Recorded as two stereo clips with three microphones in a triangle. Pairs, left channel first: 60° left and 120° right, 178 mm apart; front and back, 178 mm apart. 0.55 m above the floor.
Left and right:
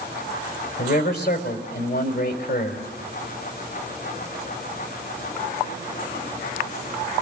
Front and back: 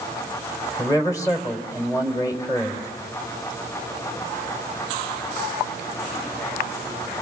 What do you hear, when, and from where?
0.8 s a man speaking: 70° left, 3 m